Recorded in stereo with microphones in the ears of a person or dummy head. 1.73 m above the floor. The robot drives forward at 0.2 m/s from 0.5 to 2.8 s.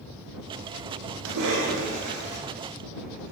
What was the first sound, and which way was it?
A cough, 75° right (ahead or behind).